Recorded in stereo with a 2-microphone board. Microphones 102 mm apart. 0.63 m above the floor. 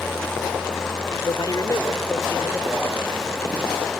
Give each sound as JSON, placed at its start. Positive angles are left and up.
{"t": 1.2, "sound": "a man speaking", "side_deg": 45}